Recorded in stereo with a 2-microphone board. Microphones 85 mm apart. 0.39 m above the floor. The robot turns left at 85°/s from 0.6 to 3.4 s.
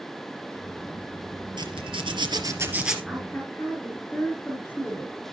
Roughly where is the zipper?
Ahead right.